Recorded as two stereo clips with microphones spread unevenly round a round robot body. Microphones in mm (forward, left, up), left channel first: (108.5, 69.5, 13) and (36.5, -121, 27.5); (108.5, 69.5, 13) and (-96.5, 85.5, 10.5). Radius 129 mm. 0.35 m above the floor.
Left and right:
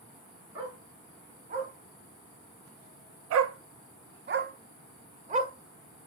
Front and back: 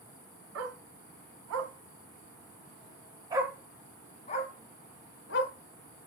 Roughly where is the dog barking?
Behind.